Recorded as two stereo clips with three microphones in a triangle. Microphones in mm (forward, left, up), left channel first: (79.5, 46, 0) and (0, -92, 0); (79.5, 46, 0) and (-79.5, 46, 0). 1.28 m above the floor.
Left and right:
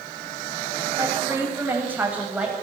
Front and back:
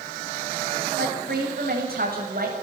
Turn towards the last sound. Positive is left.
turn(degrees=160)